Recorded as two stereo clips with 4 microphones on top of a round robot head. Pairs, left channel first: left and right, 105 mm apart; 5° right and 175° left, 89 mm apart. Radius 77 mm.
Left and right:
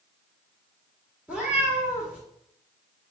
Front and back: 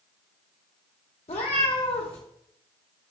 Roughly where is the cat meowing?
Ahead.